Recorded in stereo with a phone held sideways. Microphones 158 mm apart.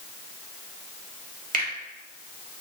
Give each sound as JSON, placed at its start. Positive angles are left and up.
{"t": 1.5, "sound": "a finger snap", "side_deg": -60, "distance_m": 0.8}